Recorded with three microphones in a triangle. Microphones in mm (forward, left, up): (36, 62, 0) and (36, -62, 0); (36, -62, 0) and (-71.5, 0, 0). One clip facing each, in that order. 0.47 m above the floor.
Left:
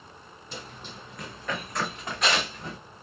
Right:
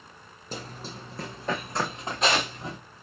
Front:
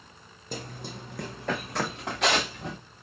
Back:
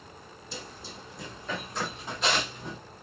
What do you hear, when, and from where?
0.5 s running footsteps: 50° right, 0.7 m; by 2.8 s 20° right, 1.8 m